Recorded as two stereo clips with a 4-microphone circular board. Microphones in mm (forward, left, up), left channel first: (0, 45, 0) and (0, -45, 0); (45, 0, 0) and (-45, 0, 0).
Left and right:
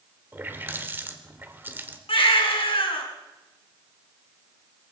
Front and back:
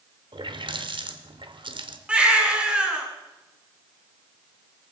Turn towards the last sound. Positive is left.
turn(degrees=100)